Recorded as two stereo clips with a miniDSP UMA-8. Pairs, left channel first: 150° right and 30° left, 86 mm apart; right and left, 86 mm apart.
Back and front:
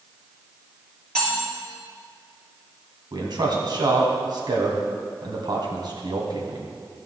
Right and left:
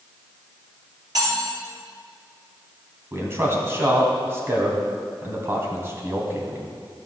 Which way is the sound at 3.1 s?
35° left.